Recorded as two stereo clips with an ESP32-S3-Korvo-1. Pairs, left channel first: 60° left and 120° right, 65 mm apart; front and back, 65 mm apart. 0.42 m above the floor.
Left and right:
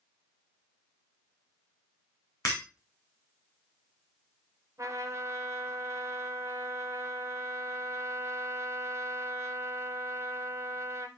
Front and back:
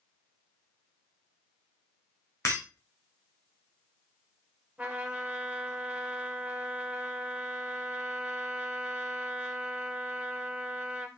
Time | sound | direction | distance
2.5 | breaking glass | 30° left | 2 m
4.8 | a trumpet | 115° right | 1.1 m